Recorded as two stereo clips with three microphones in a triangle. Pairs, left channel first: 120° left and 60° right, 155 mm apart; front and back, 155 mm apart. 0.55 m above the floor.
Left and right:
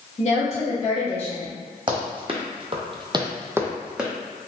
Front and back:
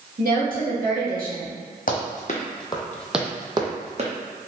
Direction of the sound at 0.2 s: 160° left.